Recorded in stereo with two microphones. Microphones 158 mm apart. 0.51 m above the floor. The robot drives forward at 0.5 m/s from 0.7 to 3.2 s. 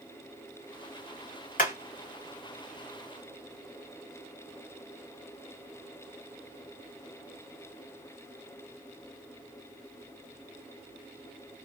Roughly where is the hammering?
Left.